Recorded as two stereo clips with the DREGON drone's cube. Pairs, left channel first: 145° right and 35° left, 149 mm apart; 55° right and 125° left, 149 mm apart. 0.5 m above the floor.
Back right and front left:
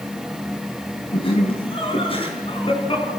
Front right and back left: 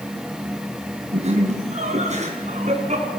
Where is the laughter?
165° left, 3.5 m; by 3.1 s 160° left, 5.5 m.